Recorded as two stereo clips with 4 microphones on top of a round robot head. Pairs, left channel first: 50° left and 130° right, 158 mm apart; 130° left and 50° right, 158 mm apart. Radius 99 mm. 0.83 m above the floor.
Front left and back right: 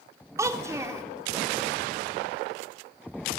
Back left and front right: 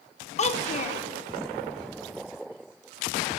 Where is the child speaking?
160° left, 0.5 m.